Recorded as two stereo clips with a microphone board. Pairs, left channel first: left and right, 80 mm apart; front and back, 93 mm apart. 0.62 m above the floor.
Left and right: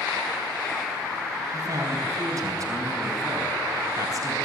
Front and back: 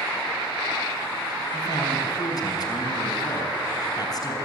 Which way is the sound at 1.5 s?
45° right.